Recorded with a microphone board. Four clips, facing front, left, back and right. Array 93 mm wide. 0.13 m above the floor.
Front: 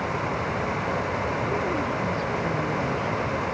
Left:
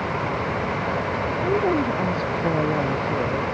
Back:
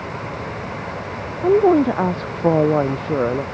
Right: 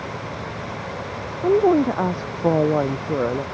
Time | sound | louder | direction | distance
1.4 | a woman speaking | right 6 dB, back 12 dB | 155° right | ?